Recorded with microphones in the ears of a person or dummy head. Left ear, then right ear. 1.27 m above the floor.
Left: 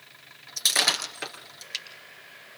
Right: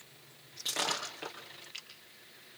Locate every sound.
0.6 s breaking glass: 75° left (ahead or behind), 4 m